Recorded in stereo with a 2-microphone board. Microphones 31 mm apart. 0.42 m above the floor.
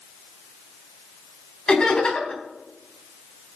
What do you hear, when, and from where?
1.7 s laughter: 30° left (ahead or behind), 3.5 m